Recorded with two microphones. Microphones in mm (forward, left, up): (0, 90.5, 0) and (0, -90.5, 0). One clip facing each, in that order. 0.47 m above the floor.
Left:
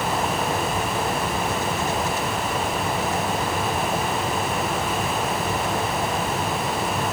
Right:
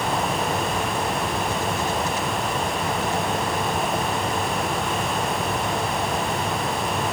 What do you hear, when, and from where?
Only background noise.